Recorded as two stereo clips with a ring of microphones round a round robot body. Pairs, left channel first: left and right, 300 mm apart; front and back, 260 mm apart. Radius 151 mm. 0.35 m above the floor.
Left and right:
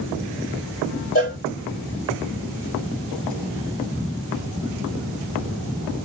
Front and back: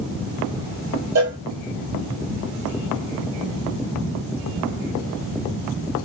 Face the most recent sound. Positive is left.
turn(degrees=155)